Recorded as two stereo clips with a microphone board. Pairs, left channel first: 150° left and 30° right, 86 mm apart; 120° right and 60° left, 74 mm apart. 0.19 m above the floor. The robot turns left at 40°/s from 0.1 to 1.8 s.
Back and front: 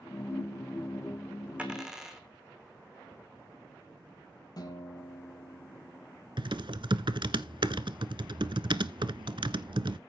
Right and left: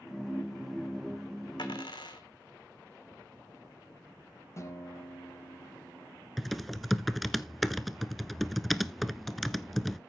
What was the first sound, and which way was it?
A dropped coin, 105° right.